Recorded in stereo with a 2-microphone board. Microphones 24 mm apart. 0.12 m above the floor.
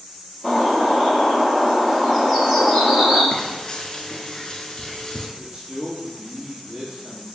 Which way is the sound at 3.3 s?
35° left (ahead or behind).